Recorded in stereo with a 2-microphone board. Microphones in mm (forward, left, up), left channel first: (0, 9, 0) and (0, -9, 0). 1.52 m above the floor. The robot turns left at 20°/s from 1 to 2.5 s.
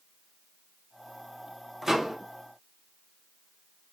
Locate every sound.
1.8 s a microwave: 25° right (ahead or behind), 0.6 m; by 2.2 s 30° right (ahead or behind), 0.6 m